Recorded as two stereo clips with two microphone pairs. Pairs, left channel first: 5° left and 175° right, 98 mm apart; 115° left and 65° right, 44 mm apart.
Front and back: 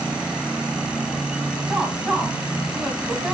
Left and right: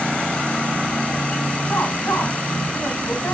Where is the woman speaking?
105° left, 2.5 m.